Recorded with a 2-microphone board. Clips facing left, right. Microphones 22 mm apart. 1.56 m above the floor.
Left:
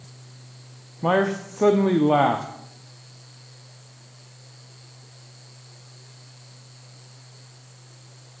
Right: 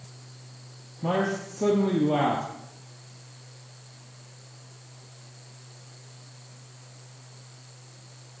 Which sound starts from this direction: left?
A man speaking, at 1.0 s.